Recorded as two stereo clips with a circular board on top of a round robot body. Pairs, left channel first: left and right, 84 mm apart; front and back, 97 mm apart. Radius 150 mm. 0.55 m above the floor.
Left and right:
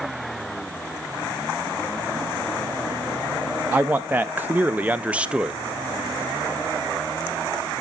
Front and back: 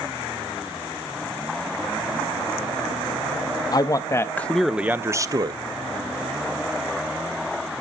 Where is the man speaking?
25° right, 0.8 m; by 5.6 s 165° right, 0.8 m.